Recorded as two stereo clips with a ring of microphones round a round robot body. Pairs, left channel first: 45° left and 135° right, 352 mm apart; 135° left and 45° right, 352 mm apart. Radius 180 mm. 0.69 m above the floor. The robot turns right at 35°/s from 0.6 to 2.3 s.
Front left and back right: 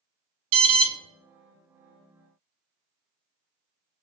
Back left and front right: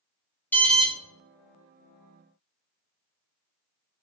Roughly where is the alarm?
Behind right.